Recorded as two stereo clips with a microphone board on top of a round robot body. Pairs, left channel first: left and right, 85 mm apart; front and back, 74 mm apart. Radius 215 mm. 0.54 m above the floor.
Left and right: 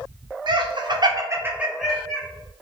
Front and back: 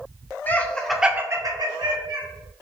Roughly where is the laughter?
Ahead right.